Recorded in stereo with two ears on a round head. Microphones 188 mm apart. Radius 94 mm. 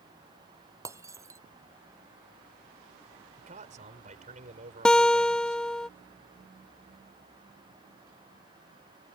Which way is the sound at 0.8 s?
15° right (ahead or behind).